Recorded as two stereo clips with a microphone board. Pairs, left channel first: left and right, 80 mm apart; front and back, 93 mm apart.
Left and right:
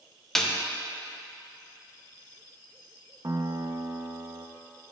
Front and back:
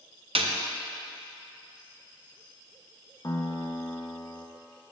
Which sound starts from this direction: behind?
A snare drum, at 0.3 s.